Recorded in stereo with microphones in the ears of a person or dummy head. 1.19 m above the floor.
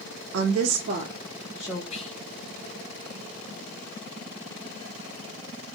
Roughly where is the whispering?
Left.